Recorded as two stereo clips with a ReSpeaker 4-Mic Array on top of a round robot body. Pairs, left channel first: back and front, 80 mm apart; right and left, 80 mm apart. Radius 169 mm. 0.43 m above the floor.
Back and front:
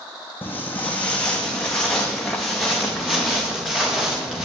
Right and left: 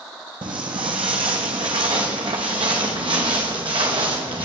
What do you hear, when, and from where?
0.4 s footsteps: 115° left, 1.4 m; by 4.5 s 85° left, 3 m